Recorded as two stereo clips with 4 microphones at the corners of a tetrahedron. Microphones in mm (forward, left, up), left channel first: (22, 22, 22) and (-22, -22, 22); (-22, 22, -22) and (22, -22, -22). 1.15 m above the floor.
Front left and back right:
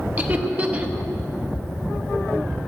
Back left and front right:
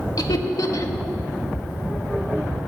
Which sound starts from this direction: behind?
Laughter, at 0.2 s.